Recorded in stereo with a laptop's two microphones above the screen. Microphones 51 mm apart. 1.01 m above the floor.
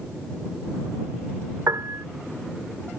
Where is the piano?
75° right (ahead or behind).